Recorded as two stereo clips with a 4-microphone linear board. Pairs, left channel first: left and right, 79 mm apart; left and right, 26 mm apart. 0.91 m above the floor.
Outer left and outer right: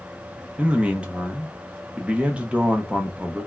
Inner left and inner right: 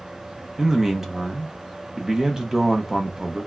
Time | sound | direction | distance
0.6 | a man speaking | 15° right (ahead or behind) | 0.7 m